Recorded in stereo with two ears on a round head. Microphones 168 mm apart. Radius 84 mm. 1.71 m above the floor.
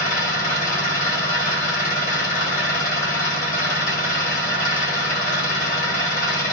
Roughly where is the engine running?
Left.